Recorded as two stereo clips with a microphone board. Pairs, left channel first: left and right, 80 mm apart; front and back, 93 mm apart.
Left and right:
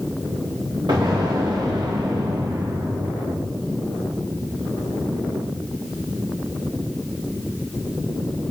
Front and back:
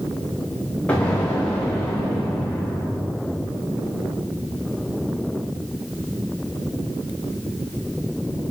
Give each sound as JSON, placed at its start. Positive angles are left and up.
{"t": 0.9, "sound": "an explosion", "azimuth_deg": -75, "distance_m": 4.0}